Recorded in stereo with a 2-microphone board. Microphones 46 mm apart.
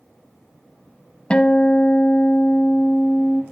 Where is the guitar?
25° left (ahead or behind), 0.7 m.